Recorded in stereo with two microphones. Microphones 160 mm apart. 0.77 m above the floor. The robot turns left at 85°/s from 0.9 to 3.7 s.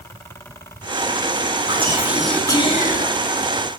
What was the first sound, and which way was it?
Whispering, 135° right.